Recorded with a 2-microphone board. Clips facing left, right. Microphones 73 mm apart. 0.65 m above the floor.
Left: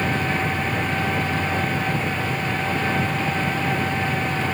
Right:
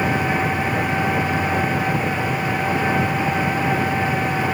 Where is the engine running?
15° right (ahead or behind).